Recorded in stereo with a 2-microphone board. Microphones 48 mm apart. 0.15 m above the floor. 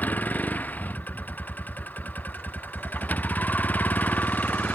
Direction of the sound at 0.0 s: 40° left (ahead or behind).